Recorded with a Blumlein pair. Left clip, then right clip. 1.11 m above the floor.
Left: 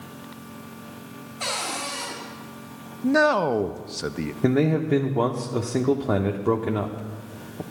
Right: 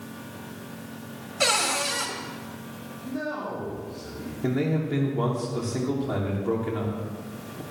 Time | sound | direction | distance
1.4 | a cupboard door | 55° right | 3.5 m
3.0 | a man speaking | 45° left | 0.6 m
4.4 | a man speaking | 60° left | 0.8 m